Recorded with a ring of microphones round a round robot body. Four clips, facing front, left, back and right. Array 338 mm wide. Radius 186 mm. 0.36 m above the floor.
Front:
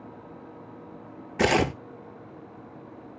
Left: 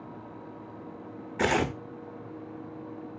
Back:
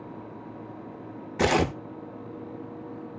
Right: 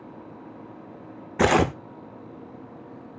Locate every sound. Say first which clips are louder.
1.4 s tearing paper: right 7 dB, front 1 dB; 75° right, 0.9 m